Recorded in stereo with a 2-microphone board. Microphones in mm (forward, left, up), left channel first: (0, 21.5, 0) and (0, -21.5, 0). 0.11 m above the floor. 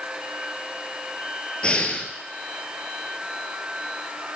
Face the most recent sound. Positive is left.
turn(degrees=25)  # may be behind; listen again after turning